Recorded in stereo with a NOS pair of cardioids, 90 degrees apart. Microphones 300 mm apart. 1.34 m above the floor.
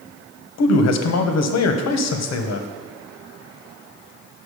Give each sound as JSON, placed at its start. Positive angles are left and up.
{"t": 0.6, "sound": "a man speaking", "azimuth_deg": 60, "distance_m": 1.0}